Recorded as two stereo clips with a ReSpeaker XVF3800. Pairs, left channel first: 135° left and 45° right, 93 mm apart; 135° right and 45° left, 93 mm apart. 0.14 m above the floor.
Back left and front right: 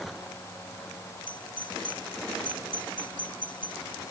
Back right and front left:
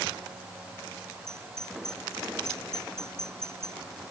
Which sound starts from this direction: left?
A doorbell, at 1.3 s.